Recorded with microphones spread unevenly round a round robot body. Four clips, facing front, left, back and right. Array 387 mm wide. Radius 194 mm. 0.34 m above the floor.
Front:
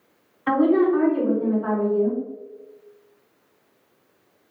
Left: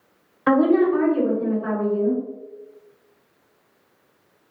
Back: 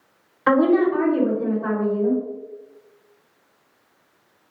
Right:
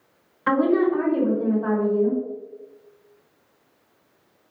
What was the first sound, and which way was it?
A woman speaking, 160° left.